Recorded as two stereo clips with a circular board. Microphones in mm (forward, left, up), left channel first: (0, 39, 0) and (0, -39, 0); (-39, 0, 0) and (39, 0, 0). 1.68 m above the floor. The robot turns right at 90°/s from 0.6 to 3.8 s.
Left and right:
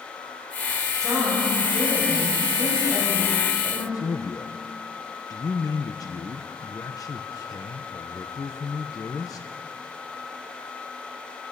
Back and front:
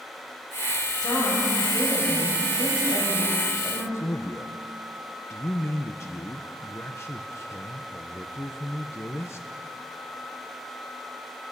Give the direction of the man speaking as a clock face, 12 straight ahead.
8 o'clock.